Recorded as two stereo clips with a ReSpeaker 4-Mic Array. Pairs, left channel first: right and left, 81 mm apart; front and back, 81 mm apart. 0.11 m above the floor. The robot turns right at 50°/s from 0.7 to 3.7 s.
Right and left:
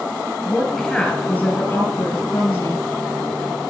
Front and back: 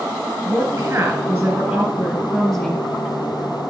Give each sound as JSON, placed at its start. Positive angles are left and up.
{"t": 0.4, "sound": "a woman speaking", "azimuth_deg": -165, "distance_m": 1.7}